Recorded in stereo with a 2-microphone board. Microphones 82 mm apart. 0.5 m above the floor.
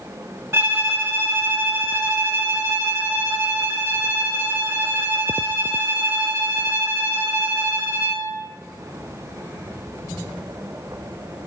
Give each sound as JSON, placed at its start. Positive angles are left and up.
{"t": 0.5, "sound": "a violin", "side_deg": -30, "distance_m": 3.0}